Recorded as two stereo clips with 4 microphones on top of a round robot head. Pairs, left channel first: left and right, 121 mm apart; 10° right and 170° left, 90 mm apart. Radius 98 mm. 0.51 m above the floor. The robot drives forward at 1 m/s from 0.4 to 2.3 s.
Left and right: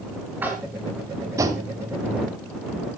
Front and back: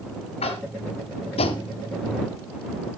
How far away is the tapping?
About 2 m.